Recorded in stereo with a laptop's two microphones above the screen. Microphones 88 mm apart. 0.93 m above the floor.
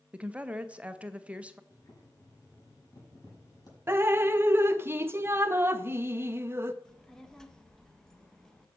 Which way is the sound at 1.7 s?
50° left (ahead or behind).